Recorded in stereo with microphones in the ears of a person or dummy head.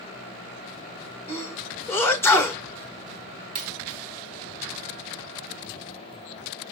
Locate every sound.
1.3 s a sneeze: 10° left (ahead or behind), 1.4 m
3.5 s a dropped coin: 35° right (ahead or behind), 0.6 m